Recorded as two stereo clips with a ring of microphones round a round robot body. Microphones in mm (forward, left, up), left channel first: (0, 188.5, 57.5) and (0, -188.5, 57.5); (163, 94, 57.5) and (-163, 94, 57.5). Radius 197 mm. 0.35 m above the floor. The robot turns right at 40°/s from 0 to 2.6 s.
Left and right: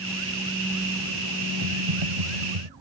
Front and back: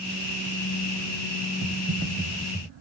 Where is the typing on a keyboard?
130° right; by 2.7 s 90° right.